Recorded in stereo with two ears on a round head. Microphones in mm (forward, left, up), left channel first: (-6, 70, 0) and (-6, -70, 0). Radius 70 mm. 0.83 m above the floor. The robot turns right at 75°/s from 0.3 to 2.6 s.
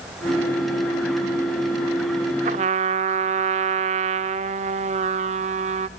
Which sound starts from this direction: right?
A trumpet, at 2.5 s.